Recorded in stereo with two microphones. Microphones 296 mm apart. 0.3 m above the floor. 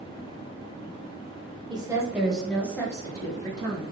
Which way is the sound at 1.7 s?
15° right (ahead or behind).